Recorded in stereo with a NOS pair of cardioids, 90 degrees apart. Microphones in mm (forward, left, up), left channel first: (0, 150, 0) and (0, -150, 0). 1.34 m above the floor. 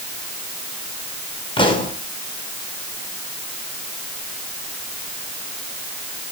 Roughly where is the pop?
Ahead.